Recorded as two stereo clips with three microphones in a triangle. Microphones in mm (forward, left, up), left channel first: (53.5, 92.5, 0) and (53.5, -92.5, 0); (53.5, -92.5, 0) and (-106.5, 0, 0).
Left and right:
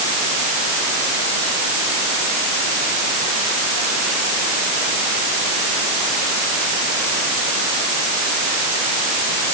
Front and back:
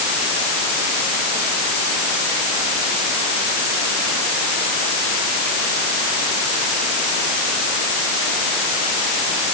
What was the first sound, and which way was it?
Only background noise.